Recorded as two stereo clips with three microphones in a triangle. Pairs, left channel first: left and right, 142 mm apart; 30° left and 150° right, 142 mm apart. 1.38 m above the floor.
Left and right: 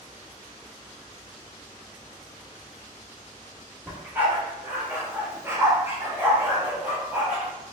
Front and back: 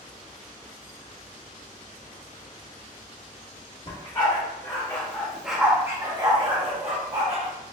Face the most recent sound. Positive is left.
turn(degrees=-170)